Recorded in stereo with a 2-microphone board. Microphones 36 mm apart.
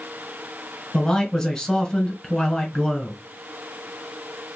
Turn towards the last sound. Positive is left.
turn(degrees=15)  # may be behind; listen again after turning